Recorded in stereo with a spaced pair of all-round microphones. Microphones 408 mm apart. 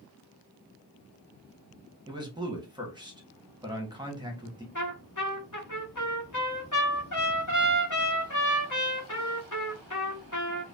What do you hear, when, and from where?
2.1 s a man speaking: 10° right (ahead or behind), 1.2 m
4.8 s a trumpet: 45° left (ahead or behind), 1.3 m